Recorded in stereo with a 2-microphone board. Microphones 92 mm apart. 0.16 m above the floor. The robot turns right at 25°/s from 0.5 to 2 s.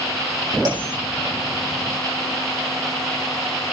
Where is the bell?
40° right (ahead or behind), 7.5 m; by 0.9 s 50° right (ahead or behind), 7.5 m.